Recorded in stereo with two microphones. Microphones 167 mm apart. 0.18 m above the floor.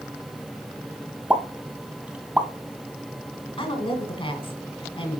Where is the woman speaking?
35° left (ahead or behind), 1.6 m.